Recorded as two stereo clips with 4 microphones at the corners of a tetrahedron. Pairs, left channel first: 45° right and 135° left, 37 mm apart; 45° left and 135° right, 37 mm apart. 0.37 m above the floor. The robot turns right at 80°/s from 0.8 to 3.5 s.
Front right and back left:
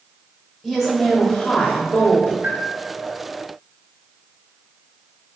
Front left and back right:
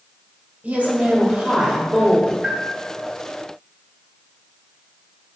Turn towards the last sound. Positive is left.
turn(degrees=-105)